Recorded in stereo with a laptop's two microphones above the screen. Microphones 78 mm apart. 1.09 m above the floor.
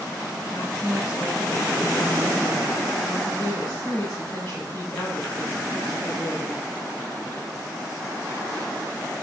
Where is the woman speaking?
35° left (ahead or behind), 3.5 m.